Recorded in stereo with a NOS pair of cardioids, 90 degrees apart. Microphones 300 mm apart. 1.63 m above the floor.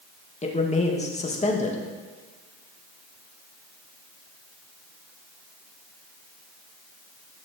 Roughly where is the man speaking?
Ahead.